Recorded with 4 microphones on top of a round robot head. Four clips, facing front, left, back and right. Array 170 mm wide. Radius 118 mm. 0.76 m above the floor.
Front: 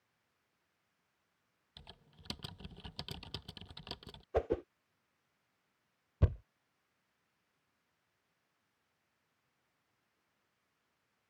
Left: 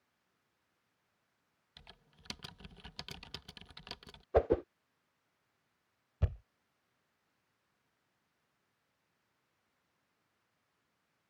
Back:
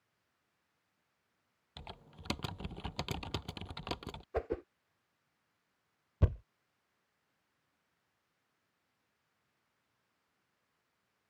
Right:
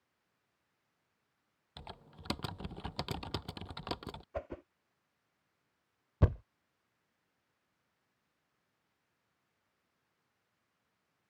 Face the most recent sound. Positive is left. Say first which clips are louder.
# right 9 dB, back 1 dB
turn(degrees=-95)